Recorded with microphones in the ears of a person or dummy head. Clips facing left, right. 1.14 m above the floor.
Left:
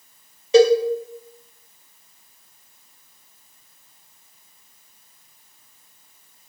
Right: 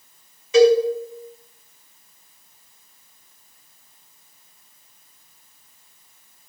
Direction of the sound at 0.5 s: 30° left (ahead or behind).